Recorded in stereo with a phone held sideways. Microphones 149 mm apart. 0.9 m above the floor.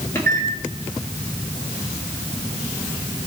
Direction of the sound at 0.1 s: 20° left (ahead or behind).